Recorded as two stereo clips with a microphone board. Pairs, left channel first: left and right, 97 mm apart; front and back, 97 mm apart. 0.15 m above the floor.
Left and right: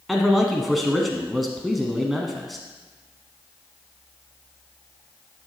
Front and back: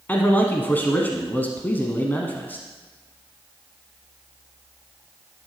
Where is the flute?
No flute in this recording.